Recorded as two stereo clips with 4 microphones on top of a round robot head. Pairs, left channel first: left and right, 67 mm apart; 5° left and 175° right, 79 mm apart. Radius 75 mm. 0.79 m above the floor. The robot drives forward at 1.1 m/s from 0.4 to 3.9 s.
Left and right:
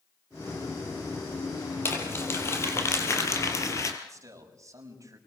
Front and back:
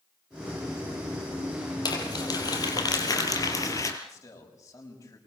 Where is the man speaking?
50° right, 6 m.